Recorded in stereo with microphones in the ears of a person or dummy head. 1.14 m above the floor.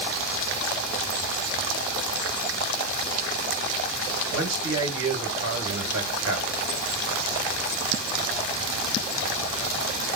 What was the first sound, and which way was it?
A man speaking, 70° right (ahead or behind).